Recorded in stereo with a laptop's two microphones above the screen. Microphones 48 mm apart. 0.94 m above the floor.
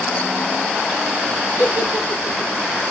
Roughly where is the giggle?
Right.